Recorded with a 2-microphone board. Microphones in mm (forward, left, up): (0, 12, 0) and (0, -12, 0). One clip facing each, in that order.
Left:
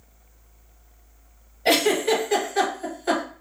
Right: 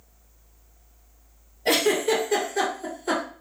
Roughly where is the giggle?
Left.